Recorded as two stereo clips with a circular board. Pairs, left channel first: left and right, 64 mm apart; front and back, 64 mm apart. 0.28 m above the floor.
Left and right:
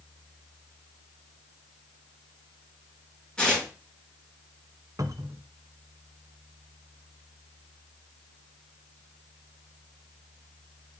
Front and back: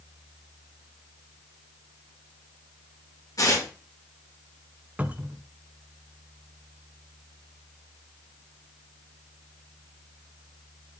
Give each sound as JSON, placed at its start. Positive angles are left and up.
{"t": 3.4, "sound": "tearing paper", "azimuth_deg": 15, "distance_m": 4.0}
{"t": 5.0, "sound": "a cupboard door", "azimuth_deg": -115, "distance_m": 0.8}